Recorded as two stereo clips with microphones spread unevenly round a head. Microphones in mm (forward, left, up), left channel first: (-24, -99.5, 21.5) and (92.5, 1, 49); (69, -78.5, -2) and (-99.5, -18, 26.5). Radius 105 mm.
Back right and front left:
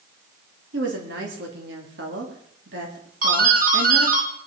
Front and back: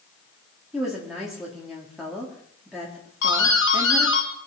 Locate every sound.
0.7 s a woman speaking: 70° left, 4 m
3.2 s a doorbell: 5° left, 3.5 m